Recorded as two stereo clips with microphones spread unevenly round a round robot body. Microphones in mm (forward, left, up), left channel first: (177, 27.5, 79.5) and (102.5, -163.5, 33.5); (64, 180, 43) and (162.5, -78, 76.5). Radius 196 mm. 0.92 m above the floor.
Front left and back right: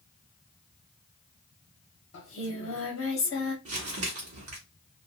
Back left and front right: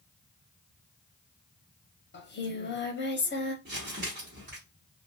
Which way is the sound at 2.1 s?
65° left.